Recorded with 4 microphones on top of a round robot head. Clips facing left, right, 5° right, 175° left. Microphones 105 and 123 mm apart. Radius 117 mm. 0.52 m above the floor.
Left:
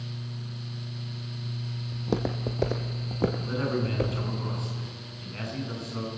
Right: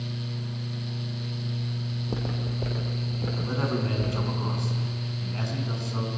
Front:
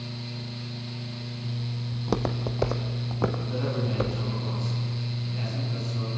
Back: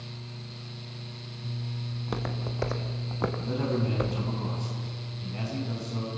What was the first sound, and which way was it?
Footsteps, 45° left.